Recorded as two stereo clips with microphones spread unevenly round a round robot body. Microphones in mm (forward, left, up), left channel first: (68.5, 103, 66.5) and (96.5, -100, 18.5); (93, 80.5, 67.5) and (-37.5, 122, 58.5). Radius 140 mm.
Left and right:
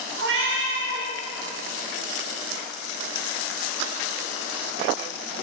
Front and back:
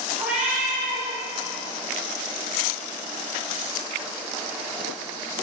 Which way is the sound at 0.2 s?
115° right.